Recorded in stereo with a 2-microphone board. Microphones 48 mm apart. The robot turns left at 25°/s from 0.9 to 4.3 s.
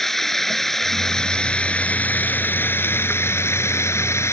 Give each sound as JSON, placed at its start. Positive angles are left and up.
{"t": 0.0, "sound": "running water", "azimuth_deg": 175}